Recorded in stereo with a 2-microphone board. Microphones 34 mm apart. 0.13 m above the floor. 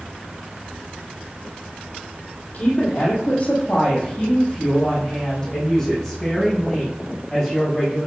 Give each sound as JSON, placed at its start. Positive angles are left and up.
{"t": 2.5, "sound": "a woman speaking", "side_deg": 40, "distance_m": 4.0}